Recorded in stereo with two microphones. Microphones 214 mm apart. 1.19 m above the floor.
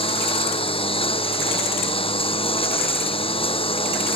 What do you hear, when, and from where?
0.0 s a lawn mower: 25° left (ahead or behind)